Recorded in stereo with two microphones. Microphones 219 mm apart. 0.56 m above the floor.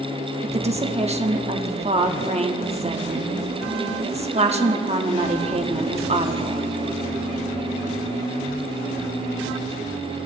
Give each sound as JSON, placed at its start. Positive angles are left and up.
{"t": 0.4, "sound": "a woman speaking", "side_deg": -30, "distance_m": 0.7}